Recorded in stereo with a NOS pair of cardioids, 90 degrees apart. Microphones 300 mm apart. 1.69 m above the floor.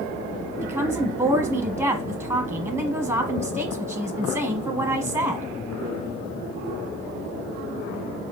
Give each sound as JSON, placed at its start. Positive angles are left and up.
{"t": 0.6, "sound": "a woman speaking", "azimuth_deg": -5, "distance_m": 0.9}